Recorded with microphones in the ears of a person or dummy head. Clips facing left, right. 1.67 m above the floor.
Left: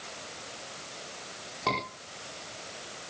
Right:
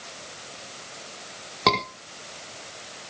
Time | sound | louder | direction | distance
1.7 | a scream | right 8 dB | 80° right | 5 m